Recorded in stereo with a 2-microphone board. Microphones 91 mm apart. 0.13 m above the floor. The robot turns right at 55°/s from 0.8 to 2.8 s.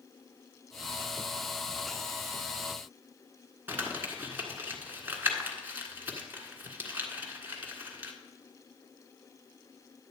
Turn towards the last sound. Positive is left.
turn(degrees=-20)  # may be behind; listen again after turning